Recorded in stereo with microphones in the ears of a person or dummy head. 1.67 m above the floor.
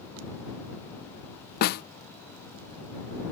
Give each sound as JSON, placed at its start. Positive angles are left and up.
{"t": 1.6, "sound": "a snare drum", "side_deg": 55}